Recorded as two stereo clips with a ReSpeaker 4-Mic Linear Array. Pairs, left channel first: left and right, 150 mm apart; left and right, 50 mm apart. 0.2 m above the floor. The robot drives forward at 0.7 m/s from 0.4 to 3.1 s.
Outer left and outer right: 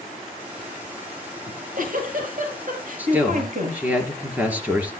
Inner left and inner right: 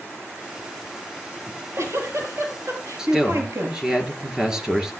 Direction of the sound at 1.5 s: 70° right (ahead or behind).